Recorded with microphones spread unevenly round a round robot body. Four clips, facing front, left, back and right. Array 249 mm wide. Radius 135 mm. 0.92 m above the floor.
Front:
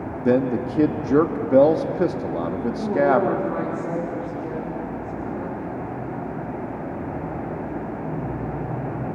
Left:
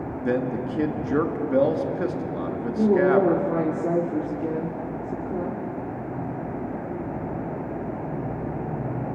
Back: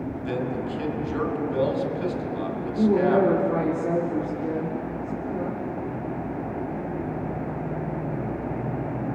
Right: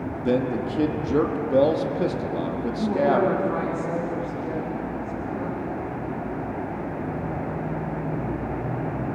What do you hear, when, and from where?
0.2 s a man speaking: 5° right, 1.8 m
2.8 s a woman speaking: 115° left, 2.5 m